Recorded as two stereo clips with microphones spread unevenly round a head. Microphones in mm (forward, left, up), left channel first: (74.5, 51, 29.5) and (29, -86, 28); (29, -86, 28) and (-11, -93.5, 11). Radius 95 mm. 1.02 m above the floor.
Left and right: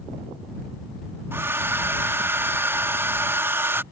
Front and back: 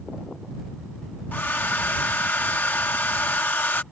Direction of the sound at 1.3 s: 35° right.